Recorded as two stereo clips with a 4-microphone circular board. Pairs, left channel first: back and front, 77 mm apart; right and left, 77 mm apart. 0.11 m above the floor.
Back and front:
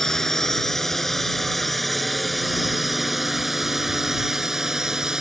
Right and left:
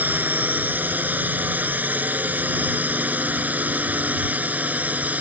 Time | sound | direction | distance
0.0 | a drone | 105° left | ?